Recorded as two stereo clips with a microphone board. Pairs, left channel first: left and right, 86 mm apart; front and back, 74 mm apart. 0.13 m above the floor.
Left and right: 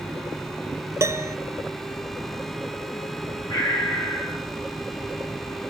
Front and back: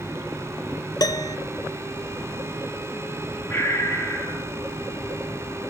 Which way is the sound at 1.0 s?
35° right.